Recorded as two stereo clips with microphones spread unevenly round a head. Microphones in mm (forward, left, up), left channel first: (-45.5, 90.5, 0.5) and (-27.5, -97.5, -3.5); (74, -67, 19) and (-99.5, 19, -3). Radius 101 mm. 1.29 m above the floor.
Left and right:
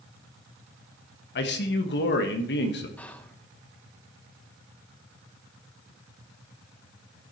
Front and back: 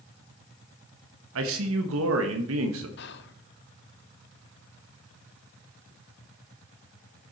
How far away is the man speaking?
About 1.4 m.